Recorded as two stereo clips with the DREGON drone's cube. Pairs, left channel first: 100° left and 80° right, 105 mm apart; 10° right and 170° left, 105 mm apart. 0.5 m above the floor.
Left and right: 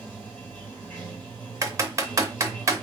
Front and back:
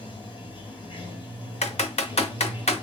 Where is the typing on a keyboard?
20° right, 0.6 m.